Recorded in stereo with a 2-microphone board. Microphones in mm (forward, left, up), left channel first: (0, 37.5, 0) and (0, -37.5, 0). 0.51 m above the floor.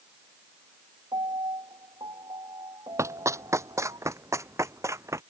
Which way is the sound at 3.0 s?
40° right (ahead or behind).